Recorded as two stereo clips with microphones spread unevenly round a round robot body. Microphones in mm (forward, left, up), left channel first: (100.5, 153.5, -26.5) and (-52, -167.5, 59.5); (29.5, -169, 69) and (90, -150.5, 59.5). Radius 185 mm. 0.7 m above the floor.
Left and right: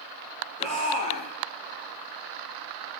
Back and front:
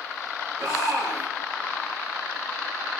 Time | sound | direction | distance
0.6 | a shout | 10° right | 8.5 m